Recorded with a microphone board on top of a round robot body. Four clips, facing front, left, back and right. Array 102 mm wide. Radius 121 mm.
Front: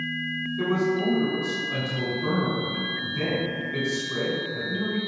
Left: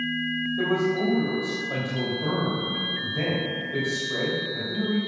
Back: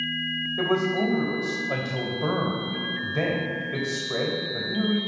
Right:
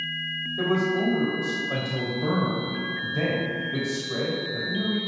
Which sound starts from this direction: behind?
A man speaking, at 0.6 s.